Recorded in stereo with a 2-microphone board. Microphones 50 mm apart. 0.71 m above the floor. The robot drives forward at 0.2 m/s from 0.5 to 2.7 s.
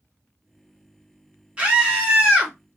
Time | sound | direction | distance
1.6 | a scream | 20° right (ahead or behind) | 1.8 m